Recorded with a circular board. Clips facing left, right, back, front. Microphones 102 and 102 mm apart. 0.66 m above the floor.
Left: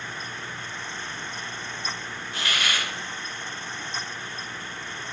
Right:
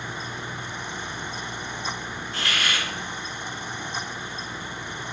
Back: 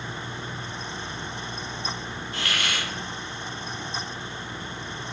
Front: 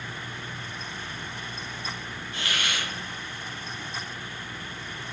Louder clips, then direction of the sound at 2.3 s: Even, back 1 dB; 175° left.